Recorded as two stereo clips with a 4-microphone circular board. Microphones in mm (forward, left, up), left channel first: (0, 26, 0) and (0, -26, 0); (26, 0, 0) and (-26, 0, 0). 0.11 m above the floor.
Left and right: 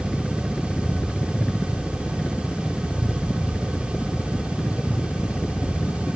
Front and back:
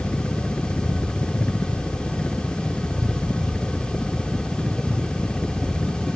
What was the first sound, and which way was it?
A helicopter, 25° left.